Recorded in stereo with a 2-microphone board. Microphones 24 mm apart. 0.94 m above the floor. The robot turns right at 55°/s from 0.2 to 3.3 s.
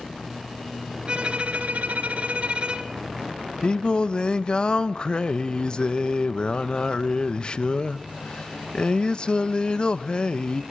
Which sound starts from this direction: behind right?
A violin, at 1.1 s.